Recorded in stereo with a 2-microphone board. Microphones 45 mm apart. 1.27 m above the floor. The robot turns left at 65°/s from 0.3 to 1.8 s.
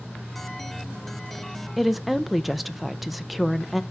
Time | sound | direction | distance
1.8 | a woman speaking | 5° right (ahead or behind) | 0.5 m